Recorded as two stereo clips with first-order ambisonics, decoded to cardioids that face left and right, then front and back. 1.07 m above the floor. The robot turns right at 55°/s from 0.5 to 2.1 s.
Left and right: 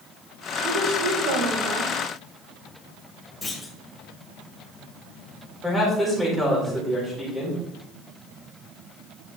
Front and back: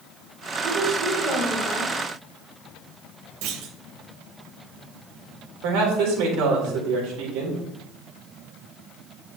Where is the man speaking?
175° right, 4.5 m.